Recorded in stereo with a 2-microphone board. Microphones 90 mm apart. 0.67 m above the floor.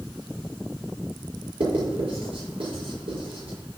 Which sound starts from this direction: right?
Writing, at 1.6 s.